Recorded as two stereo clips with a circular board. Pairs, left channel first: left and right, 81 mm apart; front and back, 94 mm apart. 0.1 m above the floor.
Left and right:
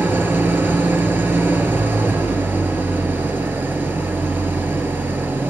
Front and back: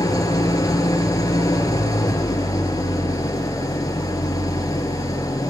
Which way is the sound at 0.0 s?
35° right.